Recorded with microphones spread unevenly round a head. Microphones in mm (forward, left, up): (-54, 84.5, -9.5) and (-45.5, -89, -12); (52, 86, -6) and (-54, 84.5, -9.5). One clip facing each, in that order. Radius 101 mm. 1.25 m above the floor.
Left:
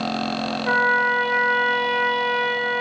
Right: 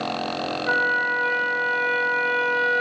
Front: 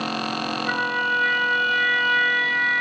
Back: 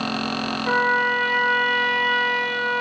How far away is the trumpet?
About 2.5 m.